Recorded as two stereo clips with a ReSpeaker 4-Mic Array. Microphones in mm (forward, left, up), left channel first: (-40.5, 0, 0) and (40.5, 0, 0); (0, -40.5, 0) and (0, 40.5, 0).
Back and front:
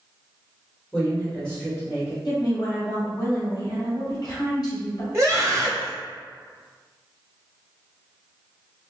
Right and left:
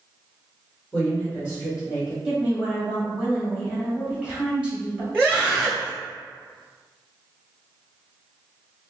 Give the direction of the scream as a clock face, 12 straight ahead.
1 o'clock.